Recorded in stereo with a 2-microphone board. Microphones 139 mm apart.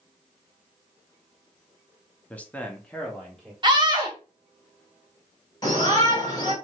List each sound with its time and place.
2.3 s a man speaking: 10° left (ahead or behind), 0.7 m; by 3.5 s 5° left (ahead or behind), 1.1 m
3.6 s a scream: 35° right (ahead or behind), 0.9 m
5.6 s a shout: 30° left (ahead or behind), 2.5 m